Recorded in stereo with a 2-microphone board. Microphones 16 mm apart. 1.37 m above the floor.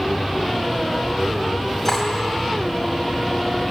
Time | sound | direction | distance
1.9 | cutlery clinking | centre (ahead or behind) | 4.5 m